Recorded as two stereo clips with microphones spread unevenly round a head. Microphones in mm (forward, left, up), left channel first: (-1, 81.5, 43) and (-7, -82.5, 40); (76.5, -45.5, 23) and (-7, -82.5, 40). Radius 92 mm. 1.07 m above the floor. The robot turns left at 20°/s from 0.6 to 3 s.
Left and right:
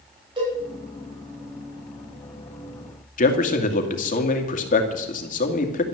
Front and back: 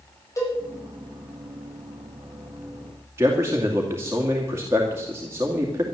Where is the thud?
I don't hear a thud.